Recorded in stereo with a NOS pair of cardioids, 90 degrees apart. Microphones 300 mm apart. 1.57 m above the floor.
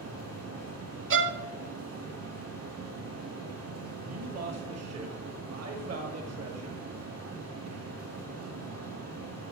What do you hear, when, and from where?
0.0 s a fan: 55° right, 4 m
1.1 s a violin: 45° right, 0.7 m
4.1 s a man speaking: 55° right, 1.4 m